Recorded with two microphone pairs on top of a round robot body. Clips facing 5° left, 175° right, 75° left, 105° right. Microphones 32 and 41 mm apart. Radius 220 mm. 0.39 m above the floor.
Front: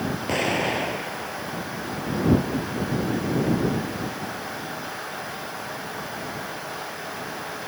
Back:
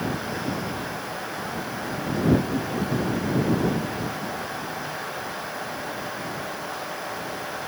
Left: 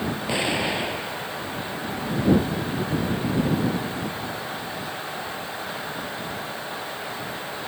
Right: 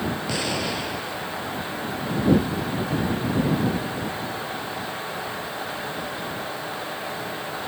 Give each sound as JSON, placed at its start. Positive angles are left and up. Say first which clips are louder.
{"t": 0.3, "sound": "an explosion", "louder": "front 6 dB, left 6 dB", "azimuth_deg": 10}